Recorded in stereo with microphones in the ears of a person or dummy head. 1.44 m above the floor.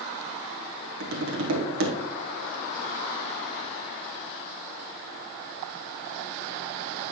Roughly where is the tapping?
Right.